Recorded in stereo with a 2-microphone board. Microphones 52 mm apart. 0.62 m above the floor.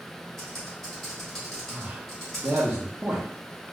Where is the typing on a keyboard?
5° left (ahead or behind), 1.9 m.